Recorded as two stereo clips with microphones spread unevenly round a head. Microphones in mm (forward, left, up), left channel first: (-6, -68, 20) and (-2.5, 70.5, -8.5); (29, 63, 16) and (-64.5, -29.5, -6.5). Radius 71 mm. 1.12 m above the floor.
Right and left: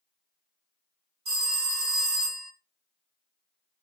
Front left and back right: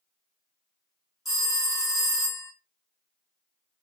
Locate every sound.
1.2 s a phone ringing: 135° left, 2.0 m